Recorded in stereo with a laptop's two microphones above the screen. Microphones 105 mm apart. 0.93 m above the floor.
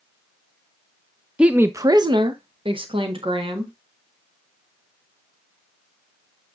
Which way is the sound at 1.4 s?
10° right (ahead or behind).